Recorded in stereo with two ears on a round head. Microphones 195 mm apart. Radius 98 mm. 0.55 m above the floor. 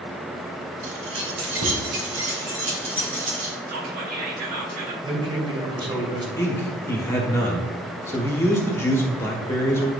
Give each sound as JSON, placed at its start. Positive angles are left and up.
{"t": 0.8, "sound": "keys jangling", "side_deg": -70, "distance_m": 1.8}
{"t": 3.7, "sound": "whispering", "side_deg": -45, "distance_m": 2.0}
{"t": 5.0, "sound": "a man speaking", "side_deg": -20, "distance_m": 2.5}
{"t": 6.4, "sound": "a man speaking", "side_deg": 10, "distance_m": 1.3}